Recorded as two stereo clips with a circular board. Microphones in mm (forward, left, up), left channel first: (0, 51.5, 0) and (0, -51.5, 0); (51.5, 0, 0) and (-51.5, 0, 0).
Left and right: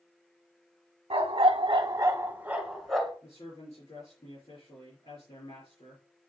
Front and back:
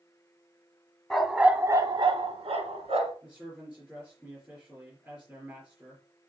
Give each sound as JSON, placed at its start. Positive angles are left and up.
{"t": 1.1, "sound": "a dog barking", "azimuth_deg": -85, "distance_m": 0.9}
{"t": 3.2, "sound": "a man speaking", "azimuth_deg": 100, "distance_m": 4.5}